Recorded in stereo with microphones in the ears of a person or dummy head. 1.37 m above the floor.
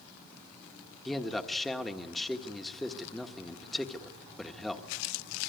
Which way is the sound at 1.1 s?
Centre (ahead or behind).